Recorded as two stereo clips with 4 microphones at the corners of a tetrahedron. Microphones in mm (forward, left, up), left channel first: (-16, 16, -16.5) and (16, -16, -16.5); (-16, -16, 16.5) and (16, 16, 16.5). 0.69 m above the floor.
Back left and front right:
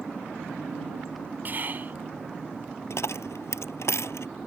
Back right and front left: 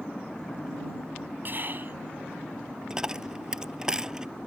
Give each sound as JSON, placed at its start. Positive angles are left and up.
{"t": 1.4, "sound": "whispering", "azimuth_deg": 5}
{"t": 2.9, "sound": "a dropped coin", "azimuth_deg": 120}